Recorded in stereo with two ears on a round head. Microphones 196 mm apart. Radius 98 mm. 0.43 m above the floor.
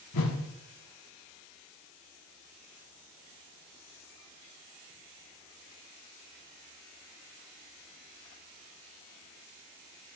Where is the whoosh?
80° left, 0.7 m.